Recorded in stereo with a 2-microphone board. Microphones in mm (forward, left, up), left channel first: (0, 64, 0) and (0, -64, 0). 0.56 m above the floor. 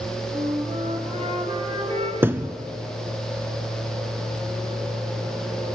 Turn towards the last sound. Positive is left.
turn(degrees=-20)  # may be behind; listen again after turning